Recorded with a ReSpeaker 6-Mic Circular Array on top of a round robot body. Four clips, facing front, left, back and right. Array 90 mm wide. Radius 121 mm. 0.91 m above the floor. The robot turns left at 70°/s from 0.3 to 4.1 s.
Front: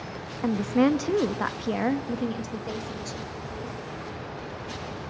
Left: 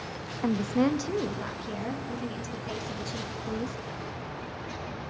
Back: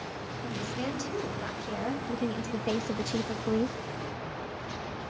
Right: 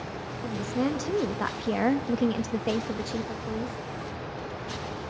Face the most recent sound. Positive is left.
turn(degrees=145)